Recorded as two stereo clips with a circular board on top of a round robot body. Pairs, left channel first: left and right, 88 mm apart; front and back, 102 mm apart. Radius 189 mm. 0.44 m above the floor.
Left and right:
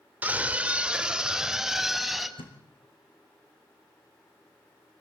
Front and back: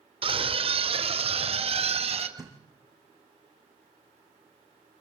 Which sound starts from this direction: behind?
A scream, at 0.2 s.